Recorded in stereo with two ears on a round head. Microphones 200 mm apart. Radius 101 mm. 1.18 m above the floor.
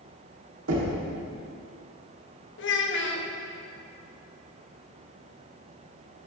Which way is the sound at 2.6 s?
50° left (ahead or behind).